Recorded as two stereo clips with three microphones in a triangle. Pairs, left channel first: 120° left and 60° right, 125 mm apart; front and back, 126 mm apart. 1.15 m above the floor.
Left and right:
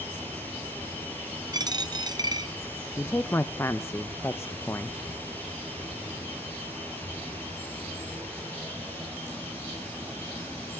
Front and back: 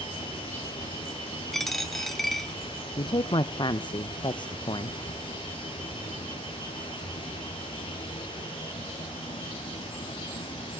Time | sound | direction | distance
0.0 | running water | 45° left | 4 m
1.5 | a dropped coin | 90° right | 0.6 m
3.0 | a woman speaking | 50° left | 0.7 m